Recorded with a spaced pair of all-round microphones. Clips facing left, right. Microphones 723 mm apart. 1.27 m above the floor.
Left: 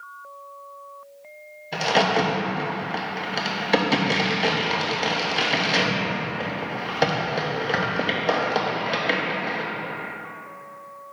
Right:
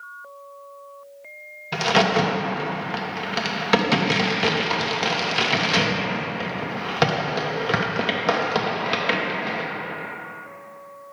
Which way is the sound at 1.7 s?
40° right (ahead or behind).